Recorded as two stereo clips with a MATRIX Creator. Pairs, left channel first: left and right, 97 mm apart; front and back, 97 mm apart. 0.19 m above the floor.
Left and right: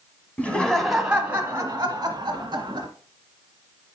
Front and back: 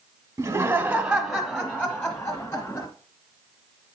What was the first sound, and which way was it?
Laughter, 155° left.